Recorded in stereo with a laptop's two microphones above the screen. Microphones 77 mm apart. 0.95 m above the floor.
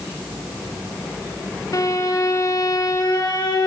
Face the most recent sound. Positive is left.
turn(degrees=55)  # may be behind; listen again after turning